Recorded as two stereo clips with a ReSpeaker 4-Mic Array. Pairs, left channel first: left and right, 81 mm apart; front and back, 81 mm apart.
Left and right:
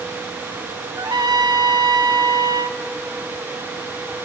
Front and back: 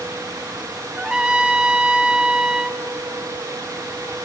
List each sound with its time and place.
1.0 s a trumpet: 105° right, 1.3 m